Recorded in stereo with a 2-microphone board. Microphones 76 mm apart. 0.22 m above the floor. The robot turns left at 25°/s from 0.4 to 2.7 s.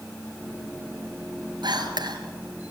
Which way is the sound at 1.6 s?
75° right (ahead or behind).